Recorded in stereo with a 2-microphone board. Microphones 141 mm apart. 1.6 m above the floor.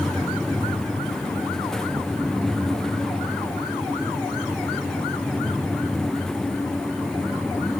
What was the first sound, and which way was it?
Only background noise.